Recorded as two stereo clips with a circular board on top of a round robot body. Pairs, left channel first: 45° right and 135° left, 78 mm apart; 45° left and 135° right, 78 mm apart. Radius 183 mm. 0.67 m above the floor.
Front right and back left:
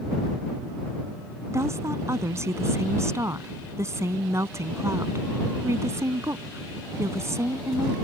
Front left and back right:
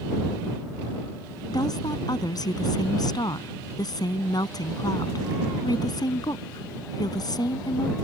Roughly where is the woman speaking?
Left.